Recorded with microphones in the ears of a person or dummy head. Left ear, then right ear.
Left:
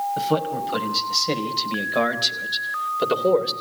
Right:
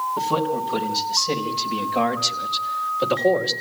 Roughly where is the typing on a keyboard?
No typing on a keyboard in this recording.